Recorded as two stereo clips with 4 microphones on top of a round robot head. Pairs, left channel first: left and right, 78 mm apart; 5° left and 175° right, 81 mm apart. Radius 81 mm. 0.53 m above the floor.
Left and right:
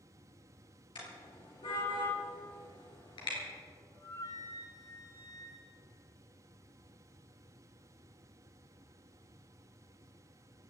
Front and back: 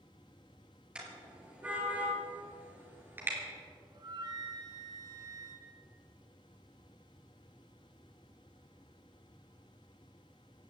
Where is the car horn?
110° left, 5.5 m; by 3.4 s 125° left, 4.5 m.